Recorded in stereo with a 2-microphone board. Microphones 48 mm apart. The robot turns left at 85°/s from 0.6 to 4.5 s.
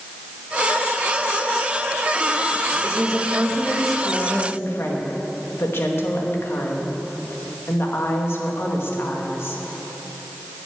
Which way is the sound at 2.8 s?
95° right.